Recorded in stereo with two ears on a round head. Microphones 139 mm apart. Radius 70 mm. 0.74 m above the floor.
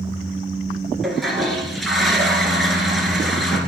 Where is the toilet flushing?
Centre (ahead or behind), 1.9 m.